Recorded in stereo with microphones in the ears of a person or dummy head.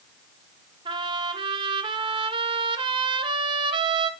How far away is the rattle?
I don't hear a rattle.